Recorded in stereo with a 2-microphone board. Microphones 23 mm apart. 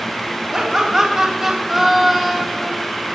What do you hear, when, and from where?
0.5 s laughter: 30° right (ahead or behind), 3 m; by 2.7 s 10° left (ahead or behind), 1.6 m